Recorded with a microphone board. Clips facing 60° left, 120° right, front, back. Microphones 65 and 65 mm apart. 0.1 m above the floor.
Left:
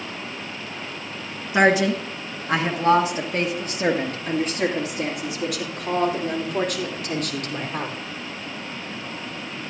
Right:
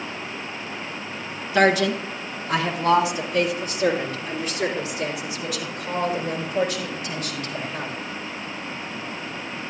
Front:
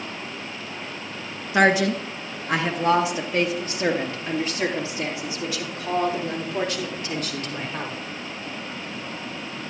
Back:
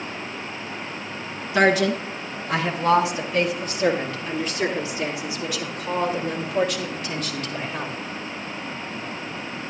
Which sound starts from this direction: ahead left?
A woman speaking, at 1.5 s.